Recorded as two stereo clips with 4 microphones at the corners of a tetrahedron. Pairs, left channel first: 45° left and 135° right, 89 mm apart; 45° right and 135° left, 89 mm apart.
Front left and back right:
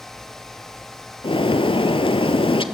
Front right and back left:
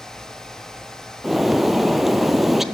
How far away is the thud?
No thud in this recording.